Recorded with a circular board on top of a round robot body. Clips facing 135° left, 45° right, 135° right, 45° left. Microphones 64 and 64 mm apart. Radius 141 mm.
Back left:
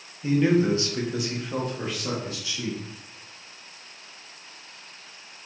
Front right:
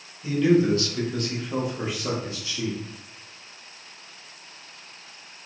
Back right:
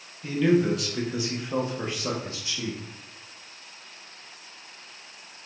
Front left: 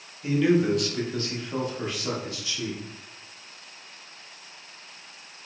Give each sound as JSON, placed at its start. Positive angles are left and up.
{"t": 0.2, "sound": "a man speaking", "azimuth_deg": 120, "distance_m": 1.1}